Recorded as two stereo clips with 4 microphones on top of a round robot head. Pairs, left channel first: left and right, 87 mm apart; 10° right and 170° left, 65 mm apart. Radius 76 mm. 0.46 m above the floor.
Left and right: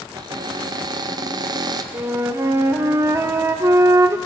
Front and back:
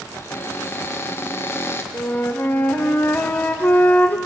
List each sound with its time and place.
0.1 s a cupboard door: 55° right, 0.7 m
1.9 s a flute: 55° right, 0.7 m